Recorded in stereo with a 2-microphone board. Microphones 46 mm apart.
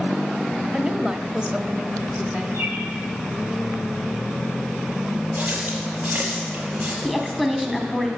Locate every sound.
0.7 s a woman speaking: 15° right (ahead or behind), 1.1 m
2.5 s a bird: 70° right (ahead or behind), 4.5 m
5.4 s a running tap: 35° right (ahead or behind), 4.5 m
7.0 s a woman speaking: centre (ahead or behind), 1.6 m